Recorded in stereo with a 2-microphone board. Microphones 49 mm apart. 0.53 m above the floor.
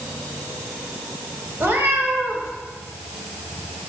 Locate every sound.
1.6 s a cat meowing: 50° right (ahead or behind), 1.4 m